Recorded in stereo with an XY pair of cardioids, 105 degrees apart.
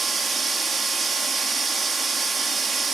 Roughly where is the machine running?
Ahead right.